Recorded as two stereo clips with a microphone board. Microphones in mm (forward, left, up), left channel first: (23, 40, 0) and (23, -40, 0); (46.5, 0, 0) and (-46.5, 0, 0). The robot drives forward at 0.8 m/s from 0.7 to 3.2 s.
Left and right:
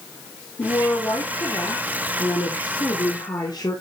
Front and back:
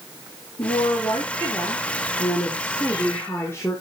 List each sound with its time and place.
0.6 s a woman speaking: 40° left, 4.5 m; by 3.8 s 60° left, 3.5 m